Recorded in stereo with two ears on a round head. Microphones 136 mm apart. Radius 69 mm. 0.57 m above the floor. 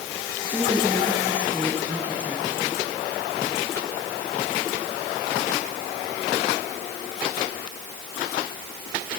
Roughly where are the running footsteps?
No running footsteps in this recording.